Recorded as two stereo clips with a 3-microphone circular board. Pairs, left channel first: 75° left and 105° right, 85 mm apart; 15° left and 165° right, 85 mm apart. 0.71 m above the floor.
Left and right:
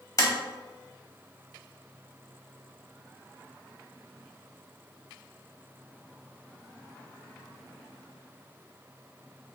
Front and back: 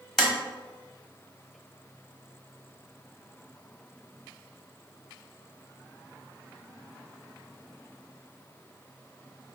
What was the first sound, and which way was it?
Tapping, 100° left.